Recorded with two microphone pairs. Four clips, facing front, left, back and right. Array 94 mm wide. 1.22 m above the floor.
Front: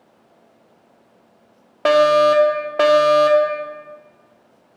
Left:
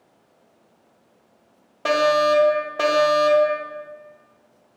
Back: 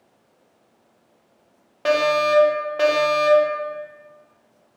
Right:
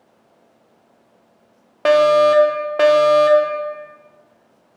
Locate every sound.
1.9 s a fire alarm: 45° right, 1.7 m